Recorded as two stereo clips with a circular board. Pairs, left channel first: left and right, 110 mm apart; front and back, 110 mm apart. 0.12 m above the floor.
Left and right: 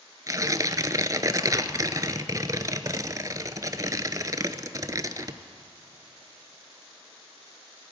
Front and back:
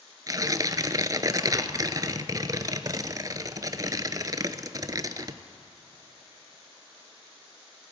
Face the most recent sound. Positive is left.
turn(degrees=-135)